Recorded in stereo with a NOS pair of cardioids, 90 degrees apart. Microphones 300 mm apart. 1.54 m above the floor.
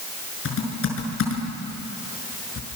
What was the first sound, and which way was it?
Typing on a keyboard, 45° left.